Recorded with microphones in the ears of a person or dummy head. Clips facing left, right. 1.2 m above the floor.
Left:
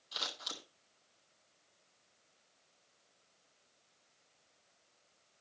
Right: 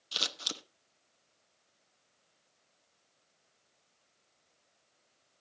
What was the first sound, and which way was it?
Scissors, 35° right (ahead or behind).